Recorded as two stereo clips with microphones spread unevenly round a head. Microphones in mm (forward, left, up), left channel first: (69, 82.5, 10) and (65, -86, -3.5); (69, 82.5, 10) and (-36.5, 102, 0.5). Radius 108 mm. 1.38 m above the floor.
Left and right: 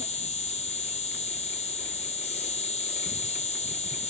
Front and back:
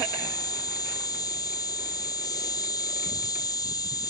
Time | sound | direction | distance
0.0 | an insect | 40° left | ?